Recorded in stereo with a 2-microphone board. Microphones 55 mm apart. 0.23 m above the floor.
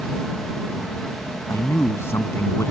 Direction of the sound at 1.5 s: 50° left (ahead or behind).